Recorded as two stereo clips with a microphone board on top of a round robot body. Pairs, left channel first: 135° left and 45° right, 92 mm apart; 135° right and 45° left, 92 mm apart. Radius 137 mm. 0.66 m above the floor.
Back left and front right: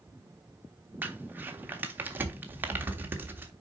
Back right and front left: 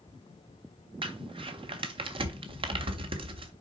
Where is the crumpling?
25° left, 1.1 m.